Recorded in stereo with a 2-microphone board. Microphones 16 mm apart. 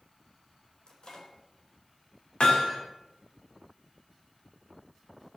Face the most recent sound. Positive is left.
turn(degrees=80)